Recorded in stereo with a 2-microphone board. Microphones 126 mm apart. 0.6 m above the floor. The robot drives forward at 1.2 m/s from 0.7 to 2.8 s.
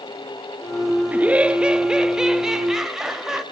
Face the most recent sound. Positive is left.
turn(degrees=-5)  # may be behind; listen again after turning